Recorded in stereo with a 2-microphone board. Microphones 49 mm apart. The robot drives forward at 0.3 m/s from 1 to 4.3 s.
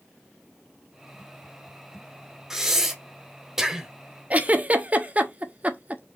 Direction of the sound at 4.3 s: 30° right (ahead or behind).